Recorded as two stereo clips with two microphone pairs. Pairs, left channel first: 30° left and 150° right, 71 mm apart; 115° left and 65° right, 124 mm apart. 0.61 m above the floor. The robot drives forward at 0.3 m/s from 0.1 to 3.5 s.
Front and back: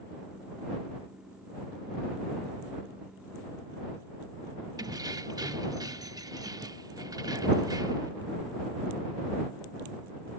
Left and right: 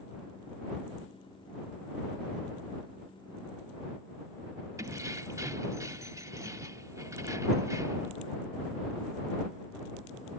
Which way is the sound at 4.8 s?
125° right.